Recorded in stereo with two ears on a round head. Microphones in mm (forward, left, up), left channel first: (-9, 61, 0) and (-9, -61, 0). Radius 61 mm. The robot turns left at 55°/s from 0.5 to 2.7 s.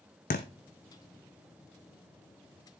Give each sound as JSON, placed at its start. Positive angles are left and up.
{"t": 0.3, "sound": "a thud", "side_deg": 75, "distance_m": 1.4}